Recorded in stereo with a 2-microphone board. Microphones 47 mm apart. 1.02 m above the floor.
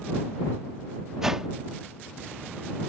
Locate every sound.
1.2 s a whoosh: 10° right (ahead or behind)